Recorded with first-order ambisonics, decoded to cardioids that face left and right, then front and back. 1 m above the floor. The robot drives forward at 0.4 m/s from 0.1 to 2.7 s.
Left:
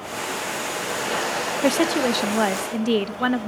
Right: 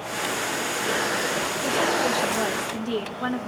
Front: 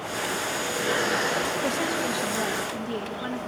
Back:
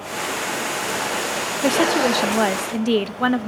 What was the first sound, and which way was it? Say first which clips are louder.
A woman speaking: left 3 dB, back 8 dB; 130° left.